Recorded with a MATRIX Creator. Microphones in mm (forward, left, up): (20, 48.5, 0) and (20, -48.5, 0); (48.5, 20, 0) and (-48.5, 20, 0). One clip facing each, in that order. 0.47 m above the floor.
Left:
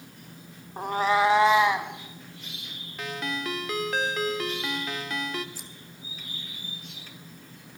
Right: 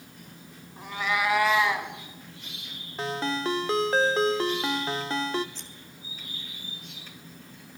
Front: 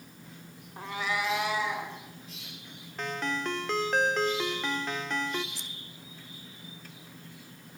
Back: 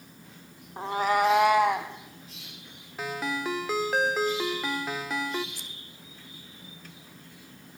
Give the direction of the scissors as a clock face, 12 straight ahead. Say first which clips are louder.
Left 1 dB, even; 6 o'clock.